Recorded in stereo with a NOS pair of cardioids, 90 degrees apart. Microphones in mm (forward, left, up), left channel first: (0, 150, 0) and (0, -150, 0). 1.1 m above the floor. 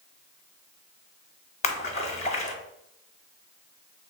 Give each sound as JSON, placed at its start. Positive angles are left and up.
{"t": 1.6, "sound": "a splash", "azimuth_deg": 20, "distance_m": 0.7}